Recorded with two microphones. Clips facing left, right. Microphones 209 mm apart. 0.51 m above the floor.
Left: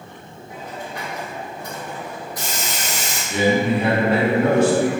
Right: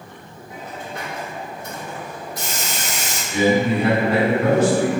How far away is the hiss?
About 1.6 m.